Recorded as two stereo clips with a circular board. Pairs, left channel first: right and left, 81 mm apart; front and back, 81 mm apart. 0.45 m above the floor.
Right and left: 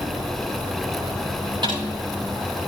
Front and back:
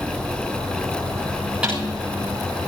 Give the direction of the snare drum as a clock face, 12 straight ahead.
9 o'clock.